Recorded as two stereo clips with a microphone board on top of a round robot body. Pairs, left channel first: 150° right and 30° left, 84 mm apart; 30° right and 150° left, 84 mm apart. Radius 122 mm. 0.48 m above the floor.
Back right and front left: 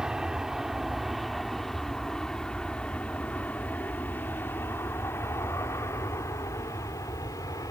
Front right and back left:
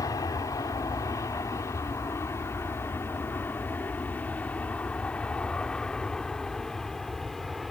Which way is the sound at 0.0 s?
50° right.